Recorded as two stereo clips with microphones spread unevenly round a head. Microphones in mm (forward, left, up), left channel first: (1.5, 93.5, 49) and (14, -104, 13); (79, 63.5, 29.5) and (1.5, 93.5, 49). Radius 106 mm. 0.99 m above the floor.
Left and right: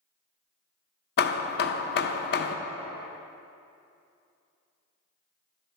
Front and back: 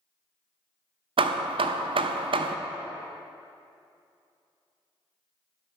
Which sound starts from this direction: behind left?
Hammering, at 1.2 s.